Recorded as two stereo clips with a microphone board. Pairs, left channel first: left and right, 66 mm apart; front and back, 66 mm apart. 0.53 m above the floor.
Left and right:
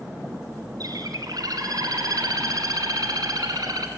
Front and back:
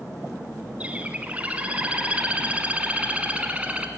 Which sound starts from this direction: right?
A bird, at 0.8 s.